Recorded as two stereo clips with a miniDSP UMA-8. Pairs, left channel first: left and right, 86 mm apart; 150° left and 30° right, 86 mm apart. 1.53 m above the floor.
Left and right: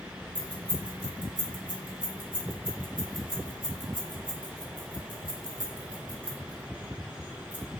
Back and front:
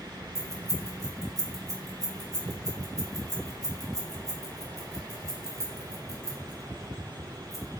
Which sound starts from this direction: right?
Keys jangling, at 0.3 s.